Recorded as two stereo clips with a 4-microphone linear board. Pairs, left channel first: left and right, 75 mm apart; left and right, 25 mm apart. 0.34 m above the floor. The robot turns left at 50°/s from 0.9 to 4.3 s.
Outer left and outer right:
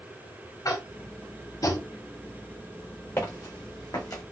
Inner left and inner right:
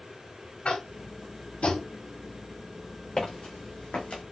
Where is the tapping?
55° left (ahead or behind), 0.9 m; by 1.9 s 50° left (ahead or behind), 0.9 m.